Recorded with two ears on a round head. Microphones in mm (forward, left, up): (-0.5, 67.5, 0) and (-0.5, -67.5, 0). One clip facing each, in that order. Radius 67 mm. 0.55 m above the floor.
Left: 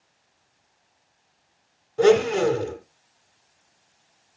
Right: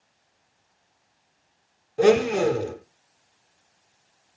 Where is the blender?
15° right (ahead or behind), 2.0 m.